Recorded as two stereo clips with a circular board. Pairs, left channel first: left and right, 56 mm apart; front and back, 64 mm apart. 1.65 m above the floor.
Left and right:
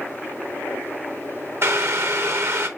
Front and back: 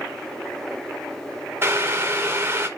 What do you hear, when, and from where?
1.6 s boiling: 125° right, 1.1 m